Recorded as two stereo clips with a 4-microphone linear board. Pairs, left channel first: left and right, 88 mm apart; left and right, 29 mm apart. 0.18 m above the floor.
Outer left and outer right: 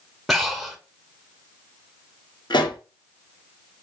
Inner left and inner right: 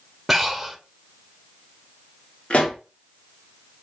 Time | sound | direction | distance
0.3 | breathing | centre (ahead or behind) | 1.0 m
2.5 | a pop | 60° left (ahead or behind) | 1.5 m